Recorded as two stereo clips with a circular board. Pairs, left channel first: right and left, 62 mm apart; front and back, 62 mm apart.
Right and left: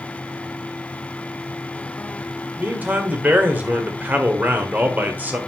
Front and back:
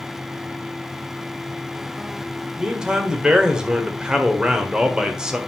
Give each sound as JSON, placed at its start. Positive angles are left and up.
{"t": 2.6, "sound": "a man speaking", "azimuth_deg": 115, "distance_m": 1.5}